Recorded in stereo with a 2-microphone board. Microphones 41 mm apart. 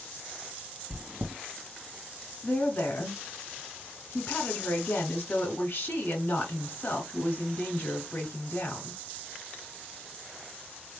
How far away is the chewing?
About 0.8 m.